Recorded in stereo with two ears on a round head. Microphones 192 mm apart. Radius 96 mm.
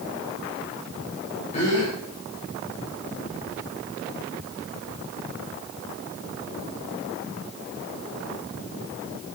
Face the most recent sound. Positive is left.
turn(degrees=35)  # may be behind; listen again after turning